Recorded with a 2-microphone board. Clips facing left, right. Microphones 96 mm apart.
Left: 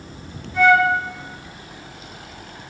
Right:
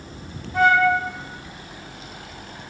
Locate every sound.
0.5 s a flute: 40° right (ahead or behind), 1.5 m